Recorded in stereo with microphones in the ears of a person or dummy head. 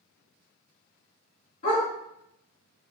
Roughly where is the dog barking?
Left.